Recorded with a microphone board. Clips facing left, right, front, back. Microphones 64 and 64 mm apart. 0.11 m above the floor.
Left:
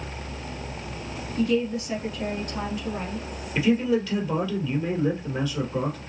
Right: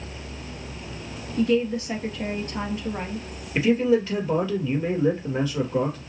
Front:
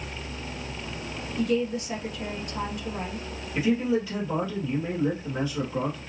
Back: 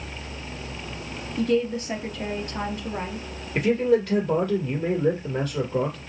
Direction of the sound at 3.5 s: 150° right.